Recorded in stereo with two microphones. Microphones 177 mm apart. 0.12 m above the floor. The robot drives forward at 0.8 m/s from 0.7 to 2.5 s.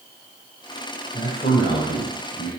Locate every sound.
1.1 s a man speaking: 55° left (ahead or behind), 3.5 m; by 2.5 s 60° left (ahead or behind), 3 m